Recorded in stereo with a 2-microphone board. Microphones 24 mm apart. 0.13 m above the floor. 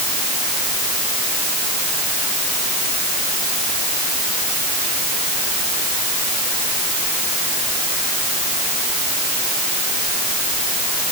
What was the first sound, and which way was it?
Only background noise.